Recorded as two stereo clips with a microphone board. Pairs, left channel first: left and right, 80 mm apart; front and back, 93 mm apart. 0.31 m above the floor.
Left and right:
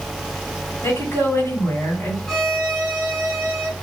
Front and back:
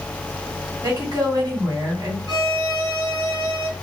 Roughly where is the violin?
Behind.